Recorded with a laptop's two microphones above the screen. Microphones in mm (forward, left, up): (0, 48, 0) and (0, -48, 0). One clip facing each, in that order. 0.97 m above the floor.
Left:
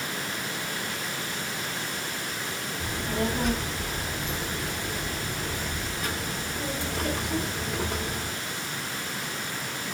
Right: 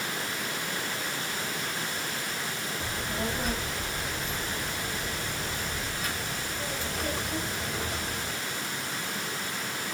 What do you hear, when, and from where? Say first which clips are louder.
2.8 s a child speaking: left 5 dB; 80° left, 1.4 m